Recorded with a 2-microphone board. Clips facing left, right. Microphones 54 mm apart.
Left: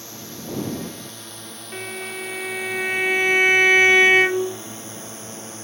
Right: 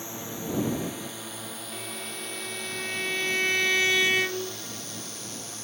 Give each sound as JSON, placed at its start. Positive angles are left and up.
{"t": 0.0, "sound": "a drone", "side_deg": -20}
{"t": 1.7, "sound": "a violin", "side_deg": 55}